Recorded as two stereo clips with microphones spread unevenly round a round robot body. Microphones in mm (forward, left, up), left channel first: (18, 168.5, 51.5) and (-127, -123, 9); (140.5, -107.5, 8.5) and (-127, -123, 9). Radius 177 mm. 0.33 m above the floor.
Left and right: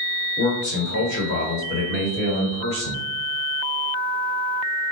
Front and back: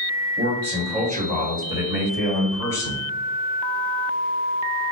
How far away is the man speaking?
About 1.7 m.